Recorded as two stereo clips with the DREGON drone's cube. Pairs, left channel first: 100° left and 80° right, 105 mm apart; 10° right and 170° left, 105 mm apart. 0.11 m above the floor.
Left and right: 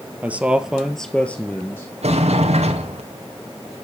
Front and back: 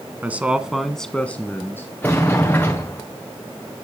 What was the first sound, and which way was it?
A man speaking, 135° right.